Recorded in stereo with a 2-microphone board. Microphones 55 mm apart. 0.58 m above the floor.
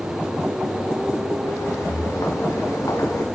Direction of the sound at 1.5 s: 70° left (ahead or behind).